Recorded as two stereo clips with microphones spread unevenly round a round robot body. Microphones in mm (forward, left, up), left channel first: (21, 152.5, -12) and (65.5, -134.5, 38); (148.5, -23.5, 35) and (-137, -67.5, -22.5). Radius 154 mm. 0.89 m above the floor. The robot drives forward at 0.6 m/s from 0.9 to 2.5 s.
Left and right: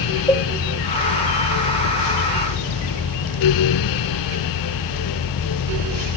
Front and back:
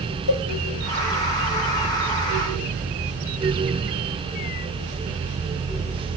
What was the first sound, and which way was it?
A cowbell, 20° left.